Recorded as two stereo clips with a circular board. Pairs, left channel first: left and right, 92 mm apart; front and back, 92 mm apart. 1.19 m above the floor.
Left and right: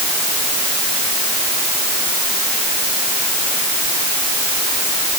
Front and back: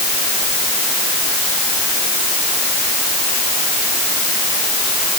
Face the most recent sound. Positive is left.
No sound to turn to.